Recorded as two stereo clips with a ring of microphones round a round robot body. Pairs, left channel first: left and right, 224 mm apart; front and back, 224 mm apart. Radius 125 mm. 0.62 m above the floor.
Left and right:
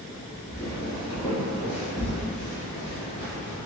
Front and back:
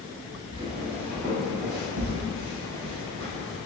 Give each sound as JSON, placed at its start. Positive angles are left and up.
{"t": 0.5, "sound": "footsteps", "azimuth_deg": 150, "distance_m": 0.6}